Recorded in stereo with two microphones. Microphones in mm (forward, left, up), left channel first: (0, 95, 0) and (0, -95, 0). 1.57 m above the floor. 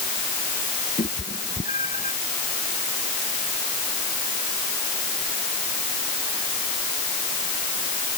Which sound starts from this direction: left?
A cat meowing, at 1.0 s.